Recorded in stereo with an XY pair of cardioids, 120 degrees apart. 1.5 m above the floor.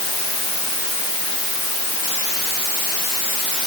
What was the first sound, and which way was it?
Only background noise.